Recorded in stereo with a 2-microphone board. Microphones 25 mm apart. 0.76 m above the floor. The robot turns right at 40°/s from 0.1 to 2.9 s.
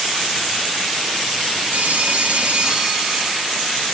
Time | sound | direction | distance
1.7 | a phone ringing | 75° right | 1.4 m